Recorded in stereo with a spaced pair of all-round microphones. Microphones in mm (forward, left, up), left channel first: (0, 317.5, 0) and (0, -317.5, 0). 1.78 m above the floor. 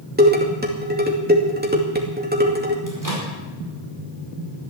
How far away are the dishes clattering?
About 2.5 m.